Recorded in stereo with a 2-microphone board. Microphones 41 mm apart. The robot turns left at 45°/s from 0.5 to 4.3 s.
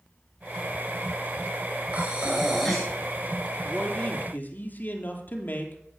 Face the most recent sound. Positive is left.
turn(degrees=50)  # may be behind; listen again after turning